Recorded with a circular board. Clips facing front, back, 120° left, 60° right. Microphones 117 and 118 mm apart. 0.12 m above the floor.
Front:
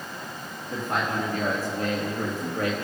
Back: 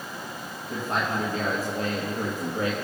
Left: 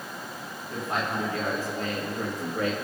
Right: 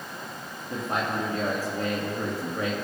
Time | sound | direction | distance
0.7 | a man speaking | 125° right | 3 m